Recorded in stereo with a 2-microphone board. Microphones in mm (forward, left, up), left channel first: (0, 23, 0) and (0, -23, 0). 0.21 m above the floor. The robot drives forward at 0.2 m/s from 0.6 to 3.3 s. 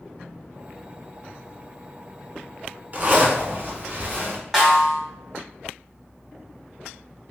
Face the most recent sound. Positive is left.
turn(degrees=-5)  # may be behind; listen again after turning